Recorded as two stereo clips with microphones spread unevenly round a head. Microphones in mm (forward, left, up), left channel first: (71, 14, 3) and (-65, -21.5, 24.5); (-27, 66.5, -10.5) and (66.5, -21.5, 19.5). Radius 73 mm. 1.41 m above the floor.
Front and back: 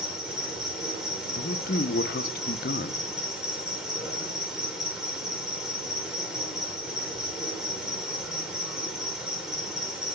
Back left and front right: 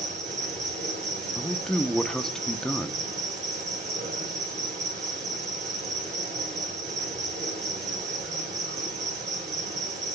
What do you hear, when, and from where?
0.0 s an insect: 80° right, 2.5 m
1.4 s a man speaking: 45° left, 0.7 m